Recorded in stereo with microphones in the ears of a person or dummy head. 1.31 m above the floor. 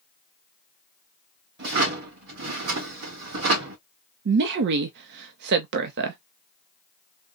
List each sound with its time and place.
1.6 s a drawer: 60° right (ahead or behind), 1.8 m
4.2 s a woman speaking: 60° right (ahead or behind), 0.5 m